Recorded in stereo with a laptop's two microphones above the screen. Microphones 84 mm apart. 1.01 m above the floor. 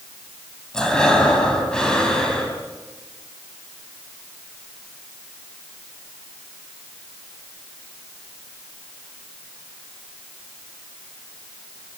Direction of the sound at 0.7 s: 10° left (ahead or behind).